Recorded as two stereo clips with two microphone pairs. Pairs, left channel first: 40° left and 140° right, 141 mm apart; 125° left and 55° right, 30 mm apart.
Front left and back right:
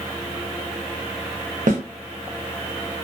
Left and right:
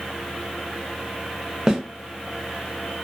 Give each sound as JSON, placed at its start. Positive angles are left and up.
{"t": 1.7, "sound": "a snare drum", "azimuth_deg": -125, "distance_m": 0.7}